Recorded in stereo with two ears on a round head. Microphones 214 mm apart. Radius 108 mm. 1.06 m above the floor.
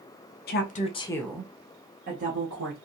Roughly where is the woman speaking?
Left.